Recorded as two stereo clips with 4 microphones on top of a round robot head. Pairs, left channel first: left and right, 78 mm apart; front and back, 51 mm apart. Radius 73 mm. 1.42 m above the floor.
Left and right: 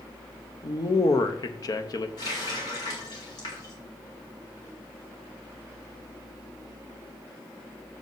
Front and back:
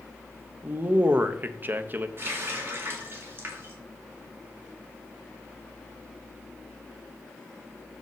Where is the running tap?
140° left, 2 m.